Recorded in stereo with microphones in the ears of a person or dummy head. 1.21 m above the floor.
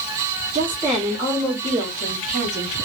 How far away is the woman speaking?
About 1.4 m.